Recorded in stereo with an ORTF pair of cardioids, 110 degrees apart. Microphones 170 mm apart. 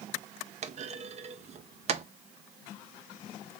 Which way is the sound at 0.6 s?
40° right.